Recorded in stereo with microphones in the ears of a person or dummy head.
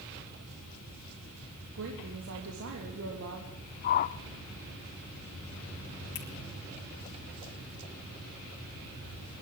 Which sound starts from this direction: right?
A woman speaking, at 1.8 s.